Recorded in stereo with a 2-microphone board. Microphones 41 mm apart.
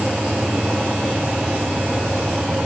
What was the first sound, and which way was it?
Only background noise.